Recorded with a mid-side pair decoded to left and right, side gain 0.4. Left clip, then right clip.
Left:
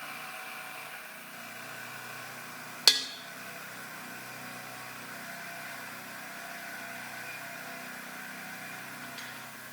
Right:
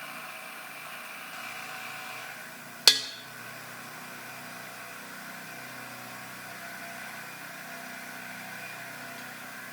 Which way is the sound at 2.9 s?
20° right.